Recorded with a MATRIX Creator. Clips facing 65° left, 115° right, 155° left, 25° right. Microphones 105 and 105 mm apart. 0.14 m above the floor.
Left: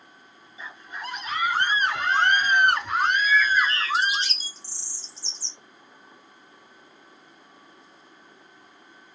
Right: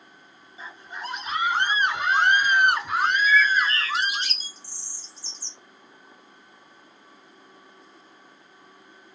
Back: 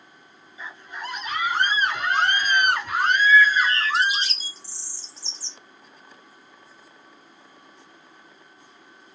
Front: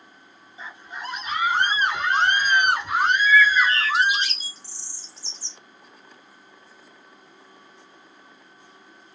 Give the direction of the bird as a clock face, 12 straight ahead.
5 o'clock.